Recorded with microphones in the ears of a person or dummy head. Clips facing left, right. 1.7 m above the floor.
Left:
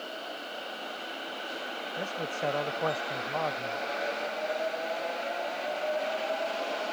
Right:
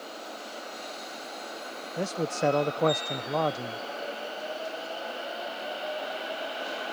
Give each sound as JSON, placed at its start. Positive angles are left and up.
{"t": 2.0, "sound": "a man speaking", "side_deg": -55}